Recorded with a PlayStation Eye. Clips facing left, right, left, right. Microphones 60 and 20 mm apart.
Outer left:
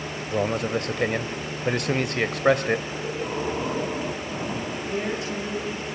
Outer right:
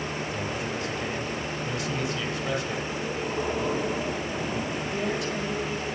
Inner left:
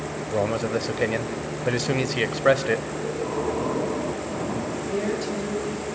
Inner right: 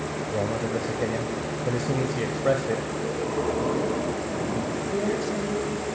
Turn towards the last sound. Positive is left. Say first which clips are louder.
# outer left 2 dB, even
turn(degrees=30)  # may be behind; listen again after turning